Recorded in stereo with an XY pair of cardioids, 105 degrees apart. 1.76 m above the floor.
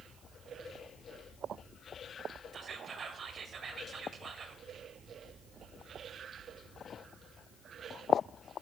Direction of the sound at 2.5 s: 45° right.